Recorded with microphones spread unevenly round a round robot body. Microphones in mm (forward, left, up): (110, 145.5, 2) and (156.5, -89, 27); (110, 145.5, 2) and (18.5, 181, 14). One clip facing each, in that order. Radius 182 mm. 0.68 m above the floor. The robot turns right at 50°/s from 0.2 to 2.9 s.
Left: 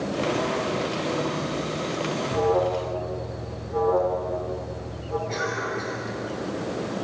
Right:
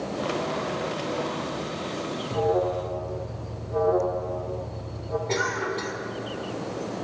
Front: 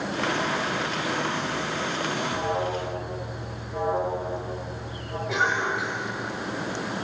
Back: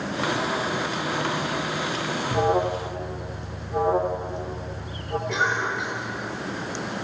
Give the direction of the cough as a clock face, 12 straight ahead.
4 o'clock.